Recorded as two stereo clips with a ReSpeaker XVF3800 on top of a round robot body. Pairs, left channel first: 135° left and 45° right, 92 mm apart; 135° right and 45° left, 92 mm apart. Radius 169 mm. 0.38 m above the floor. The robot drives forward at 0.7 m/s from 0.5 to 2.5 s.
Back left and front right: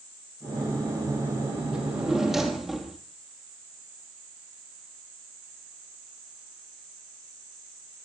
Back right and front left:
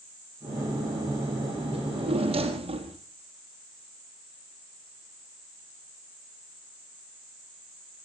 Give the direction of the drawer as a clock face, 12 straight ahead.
11 o'clock.